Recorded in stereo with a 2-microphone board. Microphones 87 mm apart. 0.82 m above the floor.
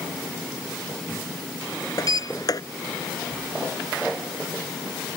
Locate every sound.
2.0 s a sliding door: 45° left (ahead or behind)